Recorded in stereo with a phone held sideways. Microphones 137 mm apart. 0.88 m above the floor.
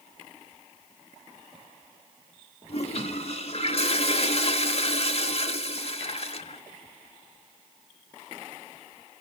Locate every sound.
2.7 s a toilet flushing: 45° left (ahead or behind), 0.8 m